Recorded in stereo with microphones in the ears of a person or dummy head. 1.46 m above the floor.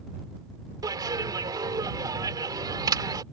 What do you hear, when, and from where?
0.8 s a clap: 20° right (ahead or behind)